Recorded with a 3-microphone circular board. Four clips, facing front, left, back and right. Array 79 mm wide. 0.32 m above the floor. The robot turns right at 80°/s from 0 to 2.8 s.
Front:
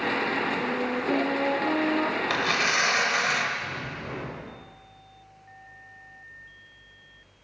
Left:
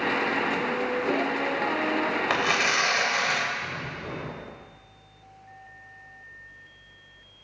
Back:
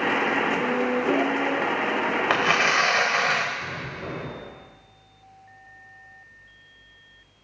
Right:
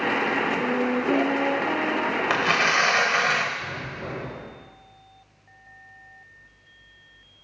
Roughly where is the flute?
Right.